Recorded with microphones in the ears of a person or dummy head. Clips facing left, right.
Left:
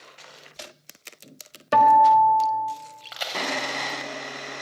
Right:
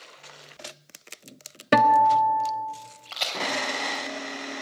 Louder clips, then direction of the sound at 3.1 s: Left 1 dB; 10° left (ahead or behind).